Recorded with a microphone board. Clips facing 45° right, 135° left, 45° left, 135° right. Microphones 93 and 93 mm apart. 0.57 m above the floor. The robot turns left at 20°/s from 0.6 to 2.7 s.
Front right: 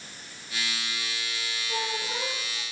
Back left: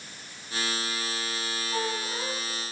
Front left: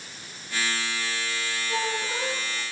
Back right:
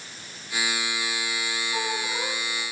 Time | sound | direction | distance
1.7 | a squeak | 15° right | 6 m